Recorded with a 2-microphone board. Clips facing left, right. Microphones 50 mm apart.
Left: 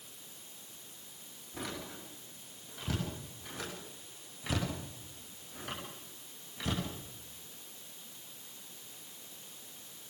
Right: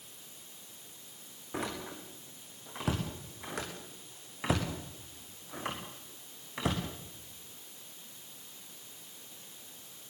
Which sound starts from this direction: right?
A door slam, at 1.5 s.